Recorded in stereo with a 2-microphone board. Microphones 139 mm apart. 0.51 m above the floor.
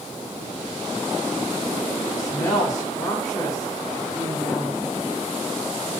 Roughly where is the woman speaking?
Left.